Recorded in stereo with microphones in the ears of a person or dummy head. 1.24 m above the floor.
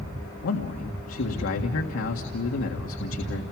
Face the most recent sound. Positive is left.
turn(degrees=75)  # may be behind; listen again after turning